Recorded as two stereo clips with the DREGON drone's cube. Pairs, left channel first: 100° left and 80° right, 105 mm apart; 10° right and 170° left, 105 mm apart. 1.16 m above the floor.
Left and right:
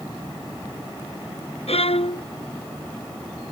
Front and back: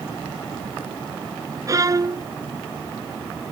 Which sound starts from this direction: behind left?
A violin, at 1.7 s.